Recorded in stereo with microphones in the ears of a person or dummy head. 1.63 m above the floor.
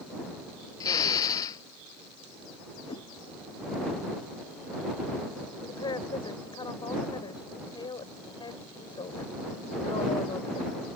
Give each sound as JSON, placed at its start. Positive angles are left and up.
{"t": 0.8, "sound": "a drill", "side_deg": 25}
{"t": 2.9, "sound": "a whoosh", "side_deg": 30}
{"t": 5.6, "sound": "a woman speaking", "side_deg": 25}